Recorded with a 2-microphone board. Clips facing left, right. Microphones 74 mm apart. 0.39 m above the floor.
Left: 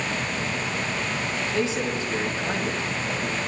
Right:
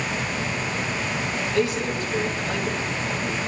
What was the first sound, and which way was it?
A man speaking, 25° left (ahead or behind).